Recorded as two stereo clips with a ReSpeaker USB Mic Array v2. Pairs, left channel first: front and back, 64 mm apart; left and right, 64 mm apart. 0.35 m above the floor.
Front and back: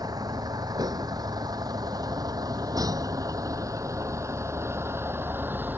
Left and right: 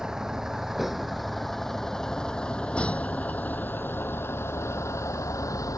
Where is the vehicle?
170° right; by 5.8 s 120° left.